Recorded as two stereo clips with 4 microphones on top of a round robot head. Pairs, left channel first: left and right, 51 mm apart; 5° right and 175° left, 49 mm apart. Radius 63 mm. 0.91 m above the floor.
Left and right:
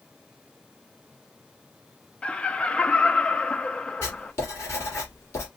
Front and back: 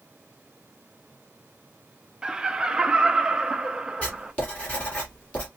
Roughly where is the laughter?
Behind left.